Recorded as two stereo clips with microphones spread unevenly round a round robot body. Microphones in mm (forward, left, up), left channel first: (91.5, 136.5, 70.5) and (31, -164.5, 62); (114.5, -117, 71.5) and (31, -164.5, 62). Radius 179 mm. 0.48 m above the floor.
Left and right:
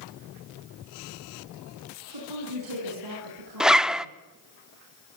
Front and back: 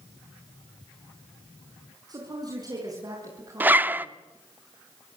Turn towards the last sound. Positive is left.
turn(degrees=175)